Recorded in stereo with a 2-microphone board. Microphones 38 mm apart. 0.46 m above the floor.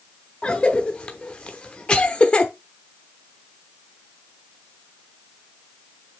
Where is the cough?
35° left (ahead or behind), 0.8 m.